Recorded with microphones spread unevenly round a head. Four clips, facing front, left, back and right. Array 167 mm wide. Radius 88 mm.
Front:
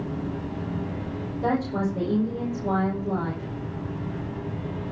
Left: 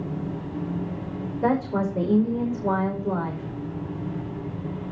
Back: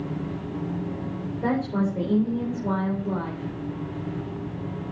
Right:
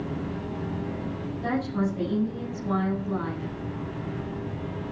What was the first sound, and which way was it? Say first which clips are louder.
A woman speaking: left 4 dB, even; 100° left.